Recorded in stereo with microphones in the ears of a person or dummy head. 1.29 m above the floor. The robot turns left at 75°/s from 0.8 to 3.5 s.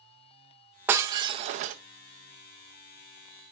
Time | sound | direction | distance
0.9 | breaking glass | 20° right | 0.6 m